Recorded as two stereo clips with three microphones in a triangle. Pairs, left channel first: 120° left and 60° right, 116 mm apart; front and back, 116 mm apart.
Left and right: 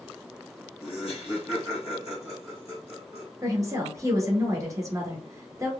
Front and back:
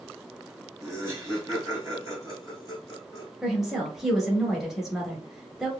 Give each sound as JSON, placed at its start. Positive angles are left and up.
{"t": 0.8, "sound": "laughter", "azimuth_deg": 130, "distance_m": 2.0}
{"t": 3.4, "sound": "a woman speaking", "azimuth_deg": -95, "distance_m": 1.4}